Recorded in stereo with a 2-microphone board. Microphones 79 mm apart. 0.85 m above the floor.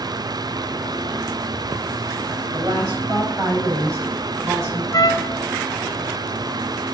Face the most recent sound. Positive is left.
turn(degrees=50)  # may be behind; listen again after turning